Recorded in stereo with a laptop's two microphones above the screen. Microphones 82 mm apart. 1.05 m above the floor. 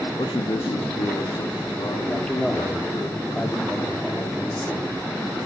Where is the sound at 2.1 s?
15° left (ahead or behind), 2 m.